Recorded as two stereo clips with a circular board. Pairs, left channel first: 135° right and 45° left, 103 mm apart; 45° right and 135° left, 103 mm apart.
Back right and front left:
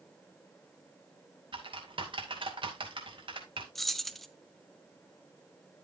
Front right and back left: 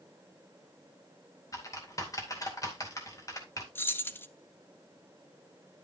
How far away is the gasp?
I don't hear a gasp.